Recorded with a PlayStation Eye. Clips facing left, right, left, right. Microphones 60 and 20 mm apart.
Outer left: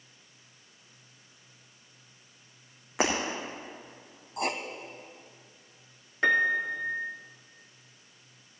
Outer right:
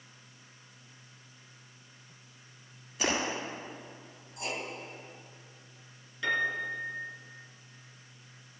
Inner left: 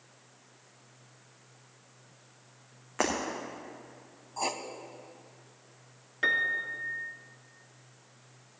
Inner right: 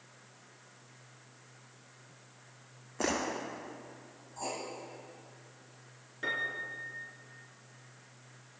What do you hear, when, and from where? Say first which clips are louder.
3.0 s breaking glass: outer left 3 dB, inner left 3 dB; 75° left (ahead or behind), 4.5 m
4.4 s writing: outer left 6 dB, inner left 6 dB; 60° left (ahead or behind), 1.0 m
6.2 s a piano: outer left 6 dB, inner left 7 dB; 50° left (ahead or behind), 1.3 m